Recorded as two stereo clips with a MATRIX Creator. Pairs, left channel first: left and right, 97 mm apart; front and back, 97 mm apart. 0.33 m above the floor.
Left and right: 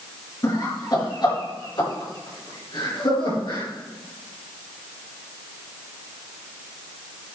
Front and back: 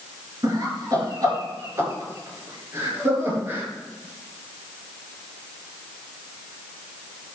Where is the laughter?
135° left, 5.5 m; by 3.7 s 115° left, 6.5 m.